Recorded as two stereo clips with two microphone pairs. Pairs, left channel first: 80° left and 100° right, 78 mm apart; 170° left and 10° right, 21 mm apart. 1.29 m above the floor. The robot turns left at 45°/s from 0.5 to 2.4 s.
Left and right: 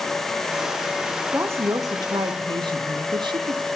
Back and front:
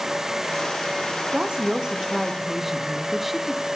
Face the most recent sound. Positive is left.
turn(degrees=-90)